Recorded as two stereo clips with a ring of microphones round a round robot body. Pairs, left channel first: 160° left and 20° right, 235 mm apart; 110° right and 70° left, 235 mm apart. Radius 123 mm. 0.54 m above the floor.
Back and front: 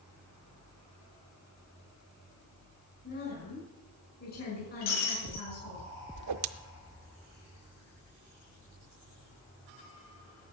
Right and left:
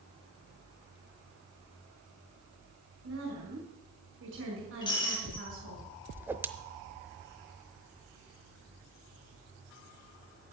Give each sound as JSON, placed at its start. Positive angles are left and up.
{"t": 3.0, "sound": "a woman speaking", "azimuth_deg": 105, "distance_m": 6.0}
{"t": 4.8, "sound": "breaking glass", "azimuth_deg": 175, "distance_m": 4.0}
{"t": 6.2, "sound": "a whoosh", "azimuth_deg": -15, "distance_m": 0.7}